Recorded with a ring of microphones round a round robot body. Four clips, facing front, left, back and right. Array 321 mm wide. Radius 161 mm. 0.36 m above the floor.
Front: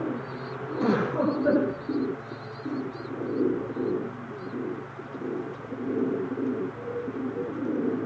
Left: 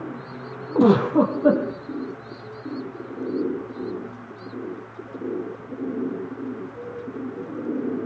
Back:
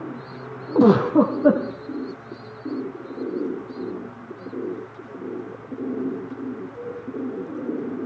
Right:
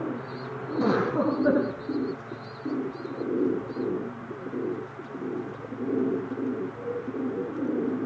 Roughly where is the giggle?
Behind left.